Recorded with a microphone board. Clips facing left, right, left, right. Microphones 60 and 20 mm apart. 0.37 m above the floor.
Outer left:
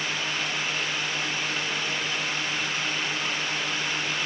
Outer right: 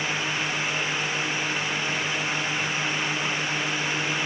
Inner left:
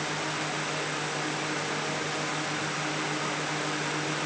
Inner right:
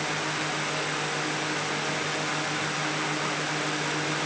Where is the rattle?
I don't hear a rattle.